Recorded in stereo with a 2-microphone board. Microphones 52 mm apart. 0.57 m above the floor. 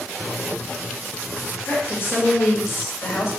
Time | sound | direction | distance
1.6 | a woman speaking | 40° left (ahead or behind) | 1.6 m